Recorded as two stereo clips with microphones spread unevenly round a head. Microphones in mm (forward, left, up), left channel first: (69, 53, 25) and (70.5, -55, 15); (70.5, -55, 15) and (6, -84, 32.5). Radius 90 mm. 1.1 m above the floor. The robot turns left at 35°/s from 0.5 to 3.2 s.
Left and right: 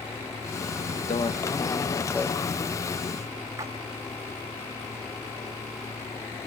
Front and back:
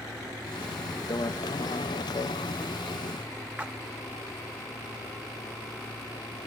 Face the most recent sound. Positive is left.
turn(degrees=-135)